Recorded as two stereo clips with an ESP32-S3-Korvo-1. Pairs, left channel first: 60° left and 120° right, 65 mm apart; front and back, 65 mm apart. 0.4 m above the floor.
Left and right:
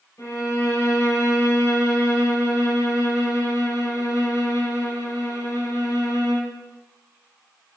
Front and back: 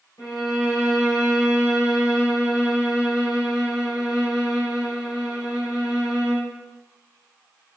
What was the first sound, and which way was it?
A violin, 25° left.